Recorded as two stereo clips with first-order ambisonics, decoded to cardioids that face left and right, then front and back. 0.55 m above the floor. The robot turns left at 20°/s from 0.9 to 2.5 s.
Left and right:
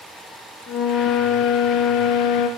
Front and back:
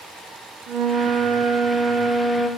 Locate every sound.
0.7 s a flute: 145° left, 0.6 m; by 2.5 s 110° left, 0.6 m